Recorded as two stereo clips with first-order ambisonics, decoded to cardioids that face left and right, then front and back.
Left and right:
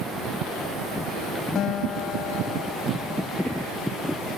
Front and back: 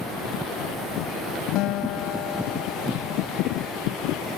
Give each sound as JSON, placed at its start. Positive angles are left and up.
{"t": 1.6, "sound": "a guitar", "azimuth_deg": 35}